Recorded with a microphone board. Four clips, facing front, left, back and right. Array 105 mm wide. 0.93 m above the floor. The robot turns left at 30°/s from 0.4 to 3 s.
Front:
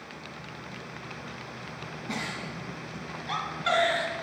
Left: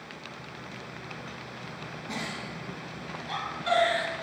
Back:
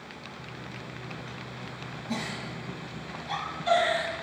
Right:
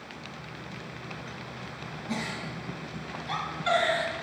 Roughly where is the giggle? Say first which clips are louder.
Right 3 dB, back 1 dB; ahead.